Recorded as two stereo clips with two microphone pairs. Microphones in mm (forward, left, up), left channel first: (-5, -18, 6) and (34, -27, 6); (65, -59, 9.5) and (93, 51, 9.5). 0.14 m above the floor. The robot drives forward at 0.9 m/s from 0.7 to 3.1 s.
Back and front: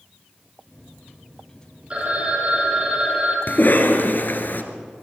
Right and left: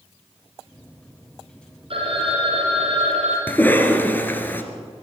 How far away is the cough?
About 1.8 m.